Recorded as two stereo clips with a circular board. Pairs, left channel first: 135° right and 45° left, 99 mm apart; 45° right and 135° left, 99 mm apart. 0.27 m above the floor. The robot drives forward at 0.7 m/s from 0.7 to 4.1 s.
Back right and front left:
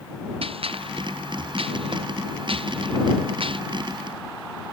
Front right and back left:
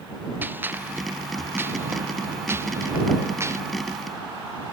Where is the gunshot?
65° left; by 3.6 s 70° left.